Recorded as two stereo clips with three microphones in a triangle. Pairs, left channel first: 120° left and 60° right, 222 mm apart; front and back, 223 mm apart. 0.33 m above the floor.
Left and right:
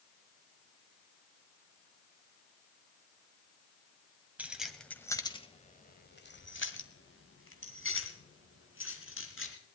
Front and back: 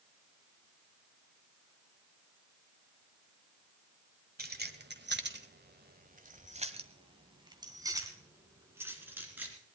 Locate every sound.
4.4 s keys jangling: 140° right, 1.5 m; by 9.5 s 100° left, 3.5 m